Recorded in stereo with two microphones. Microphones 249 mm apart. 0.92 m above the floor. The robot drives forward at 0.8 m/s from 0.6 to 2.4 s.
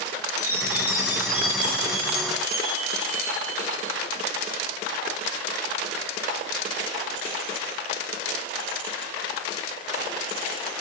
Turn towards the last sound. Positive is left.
turn(degrees=-55)  # may be behind; listen again after turning